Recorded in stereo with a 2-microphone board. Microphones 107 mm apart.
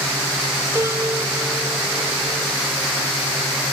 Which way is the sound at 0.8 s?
30° right (ahead or behind).